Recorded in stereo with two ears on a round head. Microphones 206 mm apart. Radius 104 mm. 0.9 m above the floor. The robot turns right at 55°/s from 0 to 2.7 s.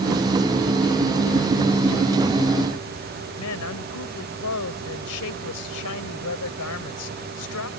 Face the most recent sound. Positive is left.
turn(degrees=80)